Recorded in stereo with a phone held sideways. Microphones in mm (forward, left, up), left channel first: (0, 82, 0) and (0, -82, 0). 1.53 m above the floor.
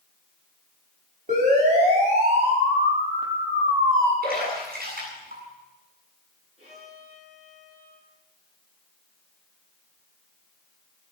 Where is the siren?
50° right (ahead or behind), 6 m; by 4.1 s 20° right (ahead or behind), 4 m.